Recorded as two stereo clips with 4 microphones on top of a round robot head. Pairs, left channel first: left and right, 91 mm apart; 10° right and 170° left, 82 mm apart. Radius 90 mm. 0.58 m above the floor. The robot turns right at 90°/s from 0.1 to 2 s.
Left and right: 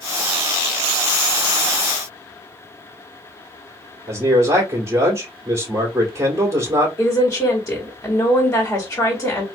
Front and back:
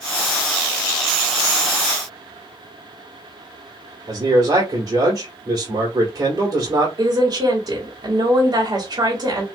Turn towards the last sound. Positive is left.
turn(degrees=150)